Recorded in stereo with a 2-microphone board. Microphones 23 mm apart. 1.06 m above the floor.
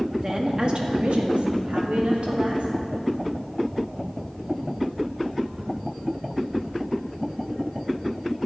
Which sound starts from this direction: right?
A woman speaking, at 0.2 s.